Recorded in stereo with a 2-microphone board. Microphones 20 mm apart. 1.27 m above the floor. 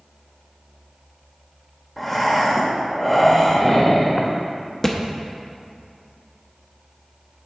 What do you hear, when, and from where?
2.0 s breathing: 5° left (ahead or behind), 1.0 m
4.8 s a thud: 15° left (ahead or behind), 0.7 m